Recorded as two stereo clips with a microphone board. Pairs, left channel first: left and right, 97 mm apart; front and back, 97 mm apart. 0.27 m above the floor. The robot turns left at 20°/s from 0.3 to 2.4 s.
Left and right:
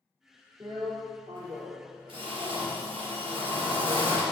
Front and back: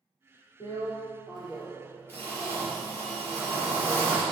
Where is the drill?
40° right, 4 m; by 4.2 s 75° right, 4 m.